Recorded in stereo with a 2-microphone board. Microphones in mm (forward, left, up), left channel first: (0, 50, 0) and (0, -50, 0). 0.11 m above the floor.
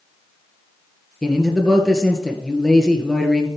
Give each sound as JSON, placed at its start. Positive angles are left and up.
{"t": 1.2, "sound": "a man speaking", "side_deg": 0, "distance_m": 2.0}